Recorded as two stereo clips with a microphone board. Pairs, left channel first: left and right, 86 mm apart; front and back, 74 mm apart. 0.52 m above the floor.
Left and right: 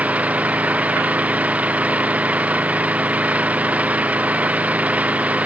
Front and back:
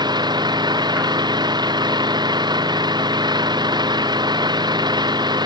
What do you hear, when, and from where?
0.0 s an engine running: 165° right